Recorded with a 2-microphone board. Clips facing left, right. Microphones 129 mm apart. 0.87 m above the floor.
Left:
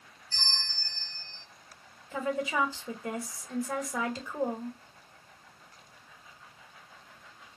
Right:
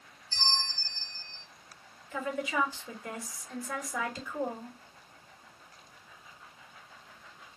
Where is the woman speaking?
30° left (ahead or behind), 1.2 m.